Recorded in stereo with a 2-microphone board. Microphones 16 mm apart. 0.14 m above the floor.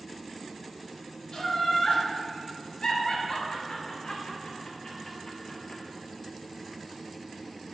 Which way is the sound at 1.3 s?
55° left (ahead or behind).